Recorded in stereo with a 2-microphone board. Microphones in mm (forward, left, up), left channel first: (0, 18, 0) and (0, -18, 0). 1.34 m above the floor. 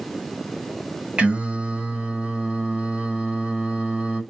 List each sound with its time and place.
1.2 s singing: 30° right (ahead or behind), 1.4 m